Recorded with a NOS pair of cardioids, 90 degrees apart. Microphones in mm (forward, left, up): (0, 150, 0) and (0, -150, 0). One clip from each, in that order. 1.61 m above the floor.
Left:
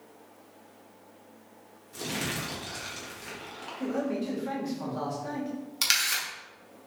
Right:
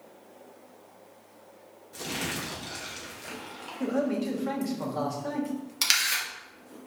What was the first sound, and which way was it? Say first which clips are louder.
Crumpling: even; straight ahead.